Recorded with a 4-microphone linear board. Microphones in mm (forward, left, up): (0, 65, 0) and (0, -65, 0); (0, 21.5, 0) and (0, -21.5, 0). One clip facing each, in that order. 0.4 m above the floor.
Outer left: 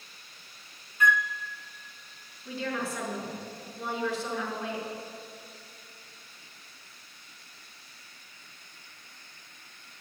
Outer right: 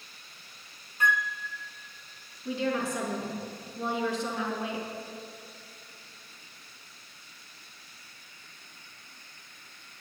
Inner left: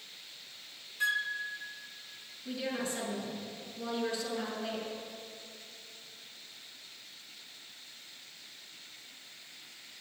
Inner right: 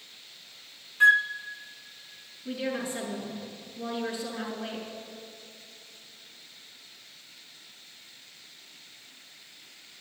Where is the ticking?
No ticking in this recording.